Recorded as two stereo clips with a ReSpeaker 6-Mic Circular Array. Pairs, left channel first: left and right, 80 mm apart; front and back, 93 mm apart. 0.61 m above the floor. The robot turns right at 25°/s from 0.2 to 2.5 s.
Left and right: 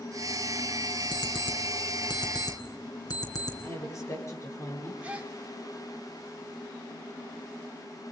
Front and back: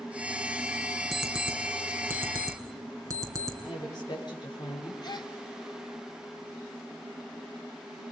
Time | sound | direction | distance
1.1 | an alarm clock | 90° left | 3.5 m
3.6 | a woman speaking | 40° left | 8 m
5.0 | a gasp | 20° right | 2 m